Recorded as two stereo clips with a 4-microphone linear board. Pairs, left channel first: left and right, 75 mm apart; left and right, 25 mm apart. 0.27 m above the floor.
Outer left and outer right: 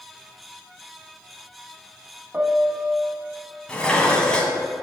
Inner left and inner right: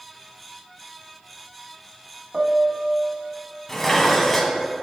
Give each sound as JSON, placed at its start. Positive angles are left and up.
{"t": 2.3, "sound": "a piano", "side_deg": -25, "distance_m": 1.0}
{"t": 3.7, "sound": "dishes clattering", "side_deg": 10, "distance_m": 1.5}